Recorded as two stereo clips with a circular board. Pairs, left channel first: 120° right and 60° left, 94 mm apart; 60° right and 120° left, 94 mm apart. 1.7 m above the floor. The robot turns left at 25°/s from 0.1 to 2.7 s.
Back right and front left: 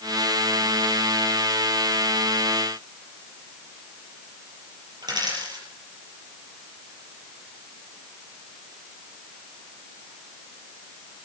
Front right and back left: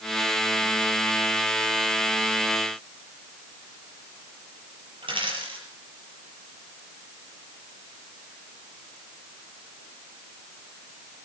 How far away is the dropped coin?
About 5.5 m.